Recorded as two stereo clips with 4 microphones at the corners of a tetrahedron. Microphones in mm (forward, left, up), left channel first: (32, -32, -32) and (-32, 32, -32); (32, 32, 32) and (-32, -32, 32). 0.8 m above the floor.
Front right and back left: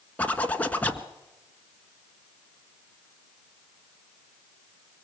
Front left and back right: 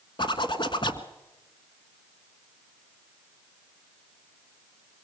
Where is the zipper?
25° left, 1.5 m.